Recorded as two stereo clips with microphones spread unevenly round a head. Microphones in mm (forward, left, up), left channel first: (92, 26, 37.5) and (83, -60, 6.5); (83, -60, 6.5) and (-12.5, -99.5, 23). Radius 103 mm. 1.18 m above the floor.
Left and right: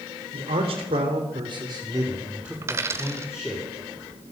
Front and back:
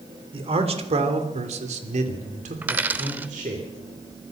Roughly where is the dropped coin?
Behind.